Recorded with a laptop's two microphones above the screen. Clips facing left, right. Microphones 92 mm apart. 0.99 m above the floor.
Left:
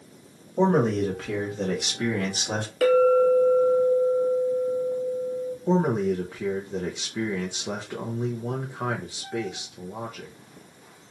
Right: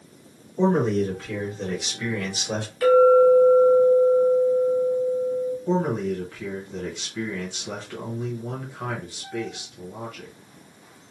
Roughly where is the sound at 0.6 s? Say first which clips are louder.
Even; left.